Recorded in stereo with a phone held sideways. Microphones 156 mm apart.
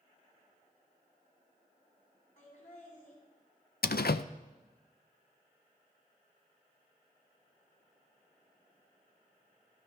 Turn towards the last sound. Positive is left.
turn(degrees=80)